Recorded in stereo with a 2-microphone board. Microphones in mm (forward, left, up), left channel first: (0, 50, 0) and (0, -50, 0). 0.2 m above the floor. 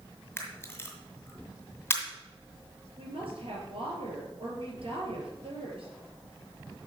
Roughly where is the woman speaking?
Right.